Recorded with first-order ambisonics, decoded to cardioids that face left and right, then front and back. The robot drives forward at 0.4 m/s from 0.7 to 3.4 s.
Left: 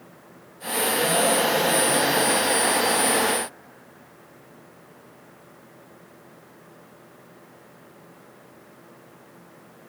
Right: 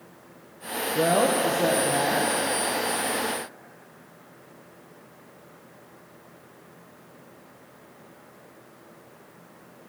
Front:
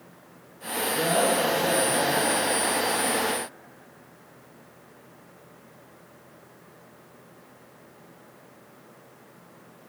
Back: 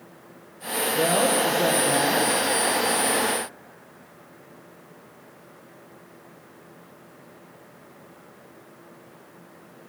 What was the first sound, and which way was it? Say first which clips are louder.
A woman speaking: right 1 dB, back 2 dB; 105° right.